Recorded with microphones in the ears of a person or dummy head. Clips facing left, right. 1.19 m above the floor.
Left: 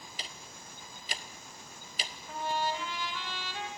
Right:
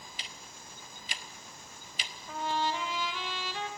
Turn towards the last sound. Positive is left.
turn(degrees=-70)  # may be behind; listen again after turning